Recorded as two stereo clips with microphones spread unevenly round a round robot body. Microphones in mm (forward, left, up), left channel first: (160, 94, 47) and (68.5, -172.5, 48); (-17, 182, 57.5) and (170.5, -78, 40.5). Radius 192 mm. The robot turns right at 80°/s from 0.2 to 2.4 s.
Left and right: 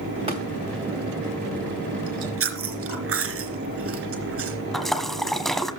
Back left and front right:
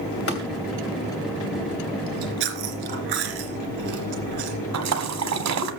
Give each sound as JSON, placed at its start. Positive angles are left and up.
{"t": 0.3, "sound": "tapping", "azimuth_deg": 180, "distance_m": 2.5}
{"t": 2.1, "sound": "chewing", "azimuth_deg": -95, "distance_m": 3.0}
{"t": 4.7, "sound": "a splash", "azimuth_deg": -20, "distance_m": 1.8}